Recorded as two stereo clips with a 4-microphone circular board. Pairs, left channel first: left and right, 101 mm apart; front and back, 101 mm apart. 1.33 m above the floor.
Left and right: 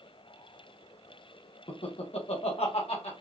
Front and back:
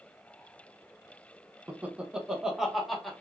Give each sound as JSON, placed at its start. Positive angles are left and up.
{"t": 1.7, "sound": "laughter", "azimuth_deg": 105, "distance_m": 0.9}